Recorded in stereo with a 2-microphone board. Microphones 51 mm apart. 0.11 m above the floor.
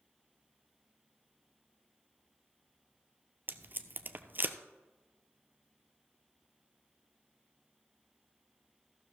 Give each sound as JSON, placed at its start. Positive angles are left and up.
{"t": 3.5, "sound": "tape being pulled", "side_deg": -40, "distance_m": 0.6}